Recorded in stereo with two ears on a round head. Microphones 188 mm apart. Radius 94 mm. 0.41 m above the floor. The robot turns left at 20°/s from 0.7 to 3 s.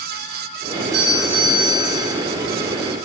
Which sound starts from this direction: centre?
A doorbell, at 0.7 s.